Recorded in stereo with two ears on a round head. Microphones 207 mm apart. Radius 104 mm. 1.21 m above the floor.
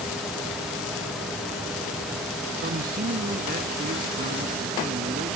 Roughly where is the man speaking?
Right.